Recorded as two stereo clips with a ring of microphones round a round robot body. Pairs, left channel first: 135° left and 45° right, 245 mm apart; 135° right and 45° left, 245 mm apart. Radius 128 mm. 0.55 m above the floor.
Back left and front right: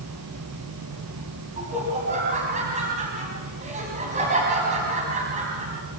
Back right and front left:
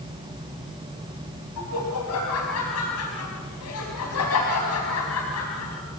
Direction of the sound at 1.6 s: 110° right.